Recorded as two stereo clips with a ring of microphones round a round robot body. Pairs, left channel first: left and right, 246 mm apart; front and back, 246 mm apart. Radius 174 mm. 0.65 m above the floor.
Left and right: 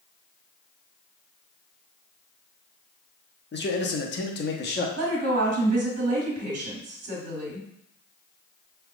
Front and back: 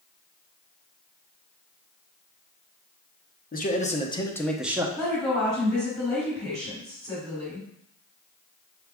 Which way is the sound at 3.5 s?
50° left.